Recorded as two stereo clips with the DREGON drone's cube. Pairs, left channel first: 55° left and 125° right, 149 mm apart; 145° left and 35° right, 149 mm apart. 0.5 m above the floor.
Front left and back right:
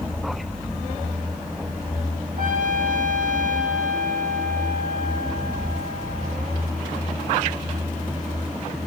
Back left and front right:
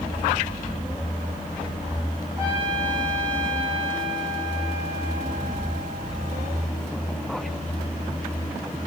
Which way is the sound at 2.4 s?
105° right.